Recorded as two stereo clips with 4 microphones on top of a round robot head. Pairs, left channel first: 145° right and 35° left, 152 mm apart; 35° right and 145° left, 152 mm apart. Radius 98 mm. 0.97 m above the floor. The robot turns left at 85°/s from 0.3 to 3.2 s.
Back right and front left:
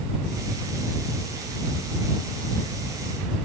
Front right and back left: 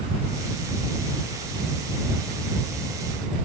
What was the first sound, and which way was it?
Only background noise.